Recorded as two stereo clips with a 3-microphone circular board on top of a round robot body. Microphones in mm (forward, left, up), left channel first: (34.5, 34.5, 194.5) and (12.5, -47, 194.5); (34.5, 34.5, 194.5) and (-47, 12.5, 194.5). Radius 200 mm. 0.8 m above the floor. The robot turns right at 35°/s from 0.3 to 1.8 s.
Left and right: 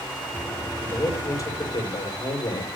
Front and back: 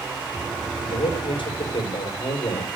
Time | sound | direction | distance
0.8 | a man speaking | 5° left | 5 m